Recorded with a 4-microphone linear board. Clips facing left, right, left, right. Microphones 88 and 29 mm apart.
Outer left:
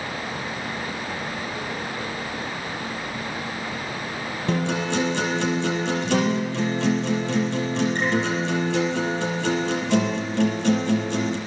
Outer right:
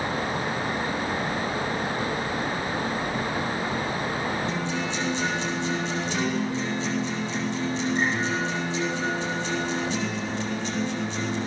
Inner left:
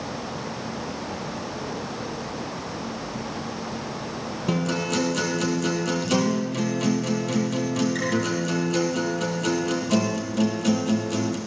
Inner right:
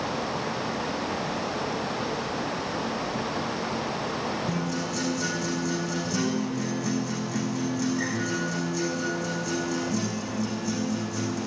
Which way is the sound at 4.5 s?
65° left (ahead or behind).